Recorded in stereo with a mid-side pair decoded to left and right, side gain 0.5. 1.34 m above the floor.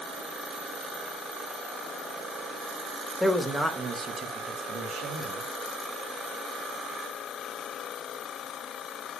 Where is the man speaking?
Straight ahead, 2 m; by 5.5 s 80° right, 3 m.